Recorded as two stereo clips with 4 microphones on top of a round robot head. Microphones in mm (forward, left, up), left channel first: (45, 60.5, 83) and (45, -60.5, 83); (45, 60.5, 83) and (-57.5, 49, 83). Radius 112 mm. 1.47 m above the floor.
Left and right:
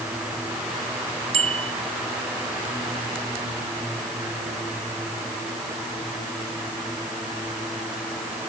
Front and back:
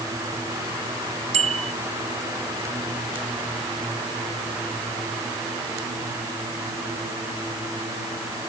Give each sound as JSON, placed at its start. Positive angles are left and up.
{"t": 1.3, "sound": "a bicycle bell", "azimuth_deg": -140}